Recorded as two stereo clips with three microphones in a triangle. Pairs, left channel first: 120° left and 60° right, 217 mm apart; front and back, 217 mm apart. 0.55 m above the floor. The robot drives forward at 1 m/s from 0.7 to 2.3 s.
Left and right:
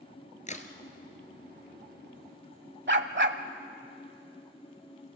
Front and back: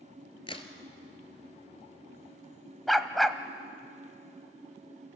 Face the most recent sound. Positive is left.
turn(degrees=-90)